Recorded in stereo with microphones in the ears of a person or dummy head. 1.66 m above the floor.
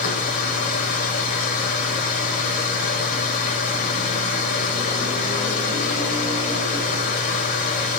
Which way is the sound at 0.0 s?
50° left (ahead or behind).